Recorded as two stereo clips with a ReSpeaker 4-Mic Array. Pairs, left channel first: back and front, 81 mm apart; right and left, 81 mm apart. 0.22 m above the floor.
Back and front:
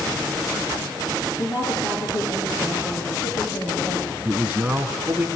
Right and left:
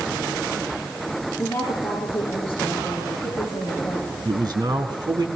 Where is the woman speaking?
155° right, 5.5 m.